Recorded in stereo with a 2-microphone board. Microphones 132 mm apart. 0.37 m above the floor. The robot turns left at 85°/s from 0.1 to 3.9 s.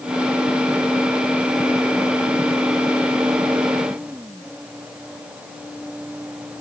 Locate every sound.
Only background noise.